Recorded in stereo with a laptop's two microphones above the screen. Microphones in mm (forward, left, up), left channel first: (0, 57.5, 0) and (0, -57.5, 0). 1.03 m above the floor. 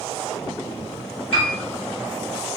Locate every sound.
1.3 s a piano: 50° left (ahead or behind), 1.8 m